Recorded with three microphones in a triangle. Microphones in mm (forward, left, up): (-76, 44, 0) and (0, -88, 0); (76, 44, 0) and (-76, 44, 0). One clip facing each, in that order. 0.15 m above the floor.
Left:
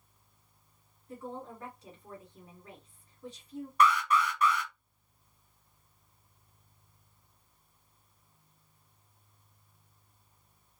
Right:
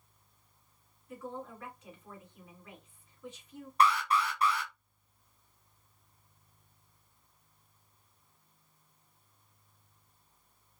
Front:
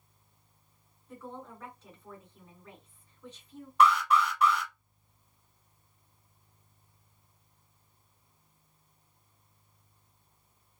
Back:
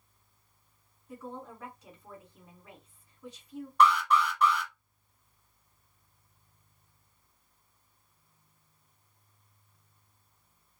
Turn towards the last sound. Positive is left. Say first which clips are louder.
# left 1 dB, even
turn(degrees=-80)